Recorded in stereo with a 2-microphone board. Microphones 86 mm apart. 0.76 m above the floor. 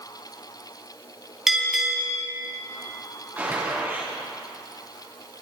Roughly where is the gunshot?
Right.